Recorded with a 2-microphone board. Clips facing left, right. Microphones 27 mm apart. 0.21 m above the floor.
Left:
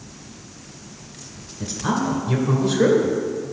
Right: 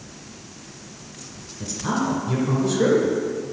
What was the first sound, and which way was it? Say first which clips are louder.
A man speaking: left 1 dB; 20° left (ahead or behind).